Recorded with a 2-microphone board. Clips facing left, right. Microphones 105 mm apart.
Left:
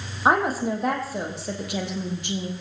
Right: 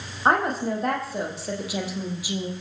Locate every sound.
0.2 s a woman speaking: 5° left (ahead or behind), 4 m; by 2.5 s 5° right (ahead or behind), 3.5 m